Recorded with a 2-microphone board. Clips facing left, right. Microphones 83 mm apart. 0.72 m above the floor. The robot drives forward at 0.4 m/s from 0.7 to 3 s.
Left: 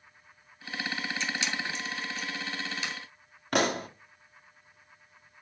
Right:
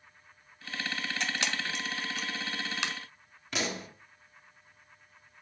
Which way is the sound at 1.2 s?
65° right (ahead or behind).